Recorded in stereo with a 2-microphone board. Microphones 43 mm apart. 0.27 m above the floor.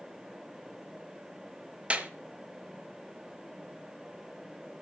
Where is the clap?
25° right (ahead or behind), 1.6 m.